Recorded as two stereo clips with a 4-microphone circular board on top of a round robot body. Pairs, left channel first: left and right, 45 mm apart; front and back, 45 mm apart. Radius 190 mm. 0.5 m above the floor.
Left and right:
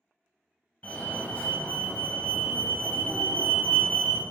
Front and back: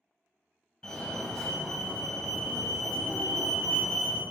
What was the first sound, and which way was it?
A fire alarm, 55° left.